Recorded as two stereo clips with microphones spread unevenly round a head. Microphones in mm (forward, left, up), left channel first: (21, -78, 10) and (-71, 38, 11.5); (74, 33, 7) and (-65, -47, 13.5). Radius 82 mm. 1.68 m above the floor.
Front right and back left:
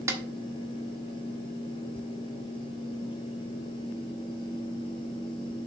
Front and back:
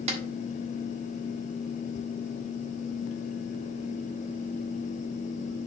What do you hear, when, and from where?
0.1 s a snare drum: 175° right, 1.5 m